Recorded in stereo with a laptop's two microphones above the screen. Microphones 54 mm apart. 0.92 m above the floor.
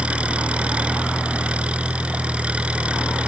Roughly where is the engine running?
Right.